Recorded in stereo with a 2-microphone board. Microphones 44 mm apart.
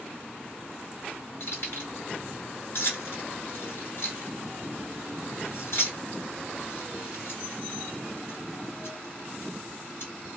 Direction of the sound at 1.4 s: 60° left (ahead or behind).